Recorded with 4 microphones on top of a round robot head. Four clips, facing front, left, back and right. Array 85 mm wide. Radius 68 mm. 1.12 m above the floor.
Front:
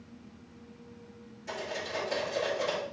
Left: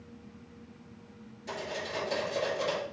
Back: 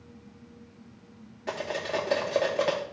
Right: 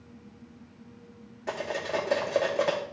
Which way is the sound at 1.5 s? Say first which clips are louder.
Right 6 dB, back 5 dB; 135° right.